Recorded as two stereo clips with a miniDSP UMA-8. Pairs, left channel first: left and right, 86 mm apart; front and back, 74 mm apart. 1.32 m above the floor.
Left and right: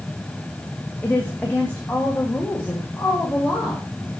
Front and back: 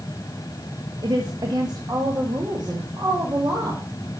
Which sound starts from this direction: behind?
A woman speaking, at 1.0 s.